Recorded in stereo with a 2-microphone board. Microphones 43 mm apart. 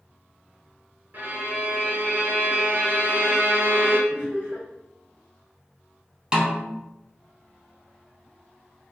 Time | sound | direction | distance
1.1 | a violin | 45° right (ahead or behind) | 0.6 m
4.1 | laughter | 40° right (ahead or behind) | 1.4 m
6.3 | a snare drum | 20° right (ahead or behind) | 0.7 m